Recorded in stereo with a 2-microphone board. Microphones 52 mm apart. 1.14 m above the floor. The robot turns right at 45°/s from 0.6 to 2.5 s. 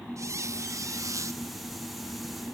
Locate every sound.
0.2 s a squeak: 105° right, 0.8 m; by 1.4 s 70° right, 0.8 m